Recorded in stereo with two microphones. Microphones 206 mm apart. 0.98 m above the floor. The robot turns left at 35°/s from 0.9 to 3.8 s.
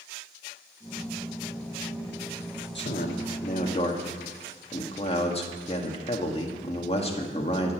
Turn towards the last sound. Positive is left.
turn(degrees=30)